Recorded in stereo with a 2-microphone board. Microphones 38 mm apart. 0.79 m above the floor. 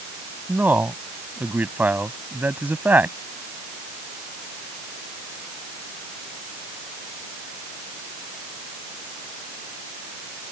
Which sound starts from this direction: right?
A man speaking, at 0.5 s.